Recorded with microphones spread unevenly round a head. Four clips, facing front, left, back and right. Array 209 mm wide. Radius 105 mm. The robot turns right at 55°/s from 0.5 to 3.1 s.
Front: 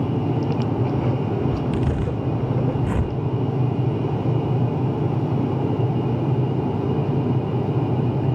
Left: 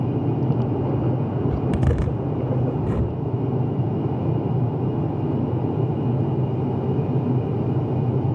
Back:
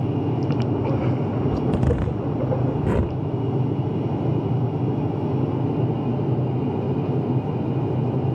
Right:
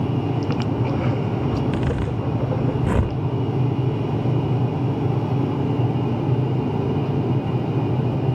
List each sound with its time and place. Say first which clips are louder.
1.5 s a zipper: even, back 1 dB; 130° left, 1.3 m; by 3.2 s 140° right, 1.3 m